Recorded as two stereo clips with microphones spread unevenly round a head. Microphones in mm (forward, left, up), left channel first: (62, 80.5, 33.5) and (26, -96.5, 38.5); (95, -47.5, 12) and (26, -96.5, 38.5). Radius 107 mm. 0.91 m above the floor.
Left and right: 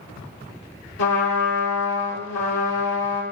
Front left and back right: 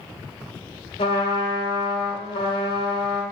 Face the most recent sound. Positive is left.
turn(degrees=70)